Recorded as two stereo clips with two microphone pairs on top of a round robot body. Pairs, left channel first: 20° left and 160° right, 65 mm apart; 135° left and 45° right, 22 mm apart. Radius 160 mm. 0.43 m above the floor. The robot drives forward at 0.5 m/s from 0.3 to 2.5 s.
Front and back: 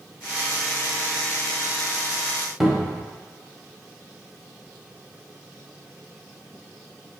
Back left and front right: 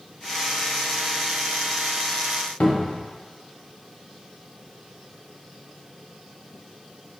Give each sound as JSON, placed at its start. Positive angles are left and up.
{"t": 2.6, "sound": "a cupboard door", "azimuth_deg": 115, "distance_m": 0.7}